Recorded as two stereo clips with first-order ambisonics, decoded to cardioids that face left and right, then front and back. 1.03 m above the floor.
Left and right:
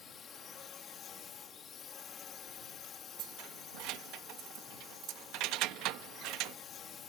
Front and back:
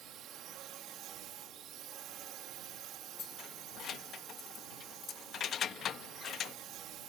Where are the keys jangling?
55° right.